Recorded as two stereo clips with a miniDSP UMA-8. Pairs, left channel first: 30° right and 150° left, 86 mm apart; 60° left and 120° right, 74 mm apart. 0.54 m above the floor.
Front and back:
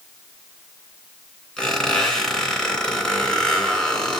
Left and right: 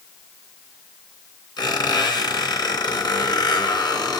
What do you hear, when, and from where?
1.6 s a squeak: 50° left, 3 m